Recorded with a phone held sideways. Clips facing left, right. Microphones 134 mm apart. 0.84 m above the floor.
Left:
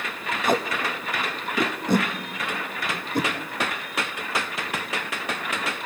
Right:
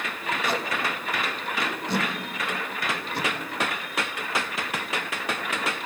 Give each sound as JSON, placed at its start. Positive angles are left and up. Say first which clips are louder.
{"t": 0.5, "sound": "tape being pulled", "louder": "left 6 dB", "side_deg": 45, "distance_m": 1.0}